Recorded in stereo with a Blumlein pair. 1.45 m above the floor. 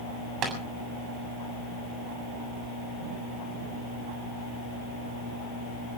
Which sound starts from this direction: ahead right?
Tapping, at 0.4 s.